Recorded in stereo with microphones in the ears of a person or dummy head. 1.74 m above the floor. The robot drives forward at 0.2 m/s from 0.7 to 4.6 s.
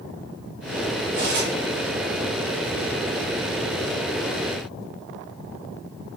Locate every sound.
1.1 s cutlery clinking: 40° right (ahead or behind), 1.0 m